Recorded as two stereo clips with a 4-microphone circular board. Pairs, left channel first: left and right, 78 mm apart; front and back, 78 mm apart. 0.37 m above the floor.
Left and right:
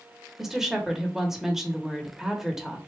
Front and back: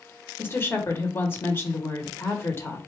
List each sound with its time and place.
0.4 s a woman speaking: 10° right, 0.9 m